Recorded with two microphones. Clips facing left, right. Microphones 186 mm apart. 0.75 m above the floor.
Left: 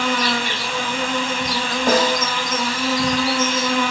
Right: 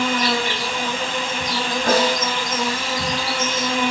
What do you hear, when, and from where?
0.0 s an insect: 25° right (ahead or behind), 1.9 m
1.9 s a snare drum: 70° right (ahead or behind), 2.5 m